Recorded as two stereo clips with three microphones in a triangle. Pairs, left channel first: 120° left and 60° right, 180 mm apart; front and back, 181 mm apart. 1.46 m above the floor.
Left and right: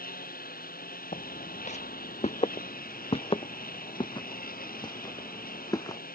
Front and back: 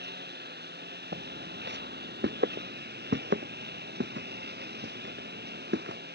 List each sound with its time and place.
0.0 s a lawn mower: 155° left
1.1 s footsteps: 165° left; by 6.0 s 170° right